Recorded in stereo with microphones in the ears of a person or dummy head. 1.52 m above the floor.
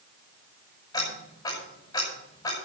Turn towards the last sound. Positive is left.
turn(degrees=25)  # may be behind; listen again after turning